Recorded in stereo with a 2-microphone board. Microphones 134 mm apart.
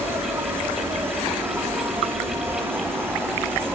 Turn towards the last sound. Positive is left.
turn(degrees=-15)  # may be behind; listen again after turning